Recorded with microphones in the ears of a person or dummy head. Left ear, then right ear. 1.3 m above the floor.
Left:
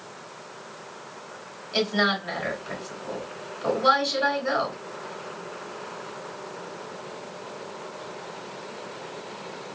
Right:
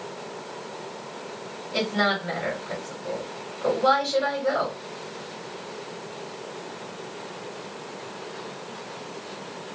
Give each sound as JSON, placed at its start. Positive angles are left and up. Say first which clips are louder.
{"t": 1.7, "sound": "a woman speaking", "louder": "left 1 dB", "side_deg": 25, "distance_m": 3.0}